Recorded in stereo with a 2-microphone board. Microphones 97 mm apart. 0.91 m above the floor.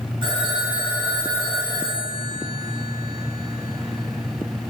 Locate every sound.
0.2 s a phone ringing: 55° right (ahead or behind), 4 m